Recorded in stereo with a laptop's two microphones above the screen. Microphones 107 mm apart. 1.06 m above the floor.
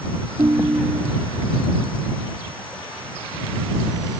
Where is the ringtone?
35° right (ahead or behind).